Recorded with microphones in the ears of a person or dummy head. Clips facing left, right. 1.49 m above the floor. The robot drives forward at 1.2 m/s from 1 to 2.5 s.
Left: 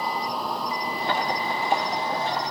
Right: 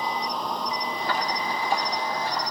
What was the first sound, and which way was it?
An insect, centre (ahead or behind).